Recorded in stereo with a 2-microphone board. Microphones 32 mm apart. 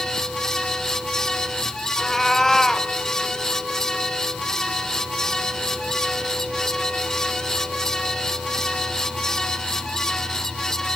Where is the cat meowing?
15° left (ahead or behind), 1.8 m.